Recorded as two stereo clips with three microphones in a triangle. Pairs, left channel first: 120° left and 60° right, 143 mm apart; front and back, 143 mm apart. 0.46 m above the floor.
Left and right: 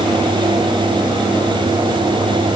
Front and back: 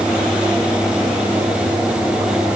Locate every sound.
Only background noise.